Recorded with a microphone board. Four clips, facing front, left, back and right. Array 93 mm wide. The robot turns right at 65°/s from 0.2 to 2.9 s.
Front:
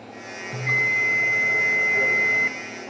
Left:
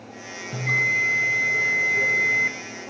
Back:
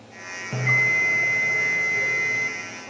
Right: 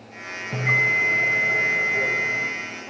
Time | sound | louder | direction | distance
0.5 | a bell | right 2 dB, back 1 dB | 135° right | 0.6 m